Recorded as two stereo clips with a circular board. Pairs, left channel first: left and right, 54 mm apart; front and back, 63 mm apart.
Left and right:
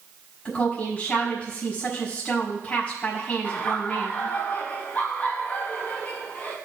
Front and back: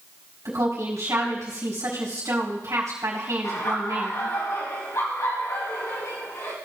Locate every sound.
0.5 s a woman speaking: 155° left, 4 m
3.4 s laughter: 30° left, 4 m